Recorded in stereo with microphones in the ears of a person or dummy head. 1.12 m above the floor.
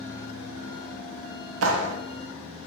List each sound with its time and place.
1.6 s a clap: 80° right, 0.5 m